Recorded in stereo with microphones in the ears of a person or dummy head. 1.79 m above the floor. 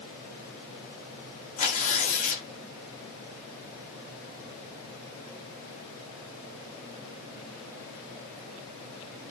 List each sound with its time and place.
1.6 s tearing paper: 45° left (ahead or behind), 1.2 m